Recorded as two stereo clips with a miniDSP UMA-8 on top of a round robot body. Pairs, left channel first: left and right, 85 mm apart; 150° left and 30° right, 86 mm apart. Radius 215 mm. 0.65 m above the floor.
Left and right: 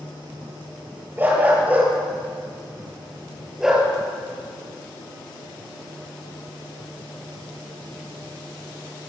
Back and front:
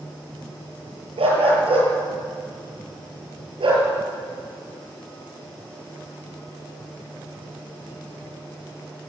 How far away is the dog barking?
About 7.5 m.